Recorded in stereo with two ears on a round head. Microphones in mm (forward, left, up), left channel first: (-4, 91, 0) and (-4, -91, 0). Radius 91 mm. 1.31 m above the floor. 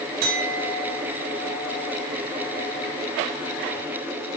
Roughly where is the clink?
Right.